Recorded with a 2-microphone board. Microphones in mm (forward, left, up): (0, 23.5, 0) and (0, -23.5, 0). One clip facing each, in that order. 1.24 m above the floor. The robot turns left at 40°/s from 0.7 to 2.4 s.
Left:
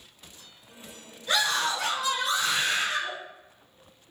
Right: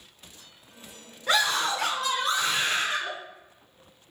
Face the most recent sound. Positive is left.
turn(degrees=-150)